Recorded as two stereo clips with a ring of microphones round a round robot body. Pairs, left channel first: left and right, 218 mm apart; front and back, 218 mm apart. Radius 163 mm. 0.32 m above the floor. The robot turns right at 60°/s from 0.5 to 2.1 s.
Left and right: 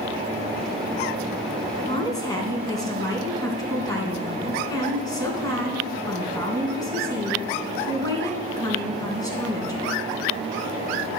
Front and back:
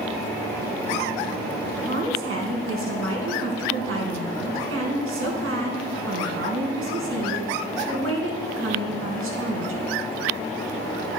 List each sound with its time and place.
1.8 s a woman speaking: 145° left, 3 m; by 9.8 s 165° left, 3 m